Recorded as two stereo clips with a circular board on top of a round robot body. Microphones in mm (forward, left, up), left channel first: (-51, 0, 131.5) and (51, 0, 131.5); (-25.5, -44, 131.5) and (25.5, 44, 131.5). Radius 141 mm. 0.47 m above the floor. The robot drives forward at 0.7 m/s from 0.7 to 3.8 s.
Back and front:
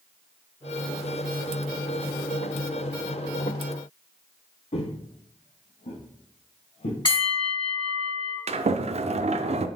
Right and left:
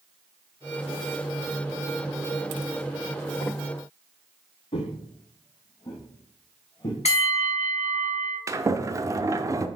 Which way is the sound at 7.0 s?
135° right.